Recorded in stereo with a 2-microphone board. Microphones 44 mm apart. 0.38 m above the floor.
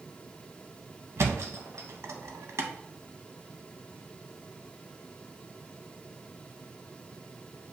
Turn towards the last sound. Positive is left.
turn(degrees=-70)  # may be behind; listen again after turning